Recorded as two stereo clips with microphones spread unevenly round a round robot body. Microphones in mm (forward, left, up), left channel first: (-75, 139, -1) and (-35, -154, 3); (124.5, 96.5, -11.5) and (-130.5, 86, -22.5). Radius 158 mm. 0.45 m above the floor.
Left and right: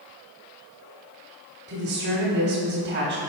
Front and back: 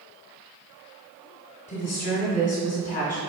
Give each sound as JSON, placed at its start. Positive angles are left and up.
{"t": 1.7, "sound": "a woman speaking", "azimuth_deg": -50, "distance_m": 0.9}